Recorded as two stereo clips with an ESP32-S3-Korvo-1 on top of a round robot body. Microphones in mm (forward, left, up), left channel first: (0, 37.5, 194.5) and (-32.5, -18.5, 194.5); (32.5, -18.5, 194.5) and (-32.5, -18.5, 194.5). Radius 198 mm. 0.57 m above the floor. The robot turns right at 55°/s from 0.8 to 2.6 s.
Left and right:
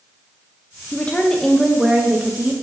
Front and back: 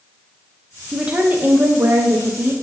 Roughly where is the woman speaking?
Left.